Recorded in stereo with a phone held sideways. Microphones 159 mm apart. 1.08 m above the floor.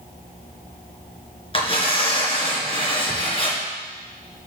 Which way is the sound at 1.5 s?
35° left (ahead or behind).